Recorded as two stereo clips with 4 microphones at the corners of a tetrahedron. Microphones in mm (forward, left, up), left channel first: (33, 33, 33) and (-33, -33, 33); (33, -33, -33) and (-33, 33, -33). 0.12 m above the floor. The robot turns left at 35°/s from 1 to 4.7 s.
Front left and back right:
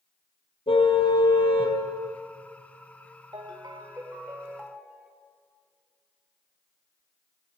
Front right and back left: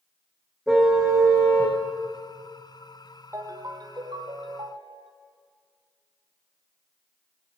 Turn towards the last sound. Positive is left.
turn(degrees=145)